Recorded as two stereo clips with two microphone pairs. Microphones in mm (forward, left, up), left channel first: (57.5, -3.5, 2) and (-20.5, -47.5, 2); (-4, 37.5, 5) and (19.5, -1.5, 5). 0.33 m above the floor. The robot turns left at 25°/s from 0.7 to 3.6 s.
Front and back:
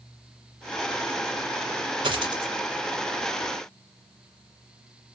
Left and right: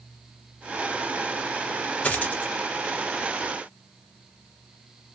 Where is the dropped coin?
Straight behind, 1.5 m; by 2.5 s 170° left, 1.5 m.